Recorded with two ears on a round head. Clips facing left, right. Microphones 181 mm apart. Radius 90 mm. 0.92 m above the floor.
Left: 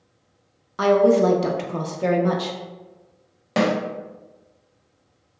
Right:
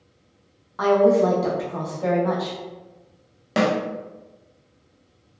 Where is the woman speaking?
35° left (ahead or behind), 0.5 m.